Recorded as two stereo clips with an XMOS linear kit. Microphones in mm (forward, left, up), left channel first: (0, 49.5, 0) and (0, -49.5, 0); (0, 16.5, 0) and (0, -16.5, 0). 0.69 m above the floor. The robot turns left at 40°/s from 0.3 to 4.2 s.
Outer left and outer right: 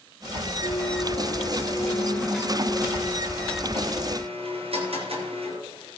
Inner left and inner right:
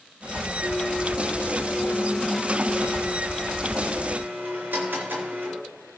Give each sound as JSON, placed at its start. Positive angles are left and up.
{"t": 0.6, "sound": "a blender", "azimuth_deg": 75, "distance_m": 4.5}